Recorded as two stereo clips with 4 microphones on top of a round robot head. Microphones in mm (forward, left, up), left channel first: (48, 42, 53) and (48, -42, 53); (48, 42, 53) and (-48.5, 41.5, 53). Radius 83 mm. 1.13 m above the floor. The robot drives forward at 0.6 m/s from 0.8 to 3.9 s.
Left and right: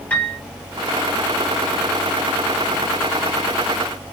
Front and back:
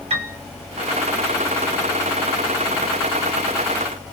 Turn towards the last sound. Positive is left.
turn(degrees=175)